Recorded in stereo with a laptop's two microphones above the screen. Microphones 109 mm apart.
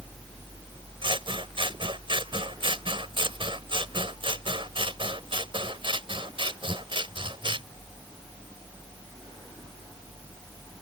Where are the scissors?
50° right (ahead or behind).